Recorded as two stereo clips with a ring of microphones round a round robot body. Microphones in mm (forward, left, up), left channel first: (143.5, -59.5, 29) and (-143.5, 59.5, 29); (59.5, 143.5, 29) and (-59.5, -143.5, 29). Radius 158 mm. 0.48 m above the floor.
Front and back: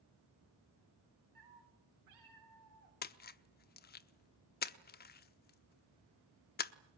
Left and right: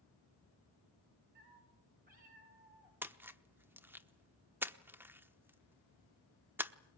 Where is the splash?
35° right, 0.9 m.